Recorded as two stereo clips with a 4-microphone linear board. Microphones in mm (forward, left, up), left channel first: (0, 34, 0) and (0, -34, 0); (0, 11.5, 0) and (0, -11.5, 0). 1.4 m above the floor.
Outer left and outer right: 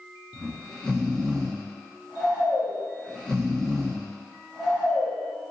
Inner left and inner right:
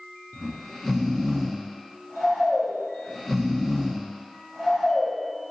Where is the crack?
No crack in this recording.